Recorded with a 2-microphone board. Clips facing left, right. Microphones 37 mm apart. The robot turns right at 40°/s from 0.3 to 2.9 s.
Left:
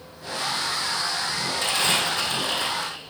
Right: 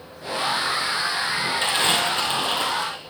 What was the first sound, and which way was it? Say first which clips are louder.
Crumpling: right 1 dB; 145° right.